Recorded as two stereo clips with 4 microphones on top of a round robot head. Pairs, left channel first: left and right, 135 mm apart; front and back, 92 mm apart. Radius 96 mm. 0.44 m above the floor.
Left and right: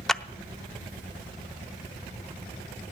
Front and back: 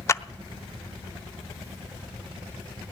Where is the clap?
5° left, 0.5 m.